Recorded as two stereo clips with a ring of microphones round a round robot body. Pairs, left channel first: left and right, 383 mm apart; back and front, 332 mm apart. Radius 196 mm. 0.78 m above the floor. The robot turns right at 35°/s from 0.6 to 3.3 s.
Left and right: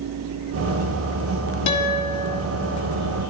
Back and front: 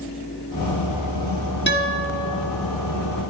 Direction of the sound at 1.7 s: 125° left.